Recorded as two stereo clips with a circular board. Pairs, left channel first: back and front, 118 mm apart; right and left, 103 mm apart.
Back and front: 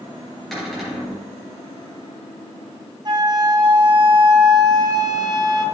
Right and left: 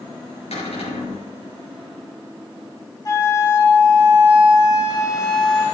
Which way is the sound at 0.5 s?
90° right.